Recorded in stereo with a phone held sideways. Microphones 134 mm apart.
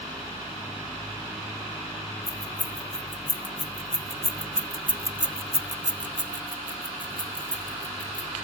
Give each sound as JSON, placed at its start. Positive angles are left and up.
{"t": 2.3, "sound": "keys jangling", "side_deg": 45, "distance_m": 1.5}